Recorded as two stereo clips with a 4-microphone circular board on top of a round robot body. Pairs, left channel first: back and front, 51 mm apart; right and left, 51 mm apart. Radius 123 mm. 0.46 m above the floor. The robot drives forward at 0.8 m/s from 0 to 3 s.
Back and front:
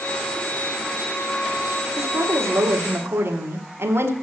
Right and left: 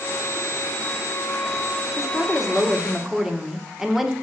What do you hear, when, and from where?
1.9 s a woman speaking: 5° left, 2.5 m; by 4.1 s 10° left, 1.8 m